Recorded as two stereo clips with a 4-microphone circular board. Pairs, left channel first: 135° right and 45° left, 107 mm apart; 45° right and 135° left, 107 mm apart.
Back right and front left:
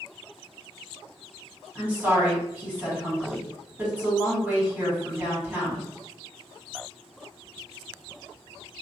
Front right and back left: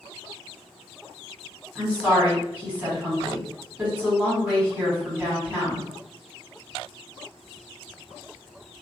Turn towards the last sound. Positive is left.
turn(degrees=85)